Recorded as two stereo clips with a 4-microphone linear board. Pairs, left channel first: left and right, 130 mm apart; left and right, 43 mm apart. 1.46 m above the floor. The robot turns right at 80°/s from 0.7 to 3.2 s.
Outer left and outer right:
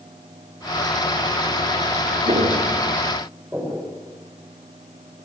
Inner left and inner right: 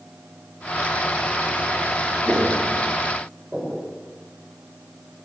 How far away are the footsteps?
About 7 m.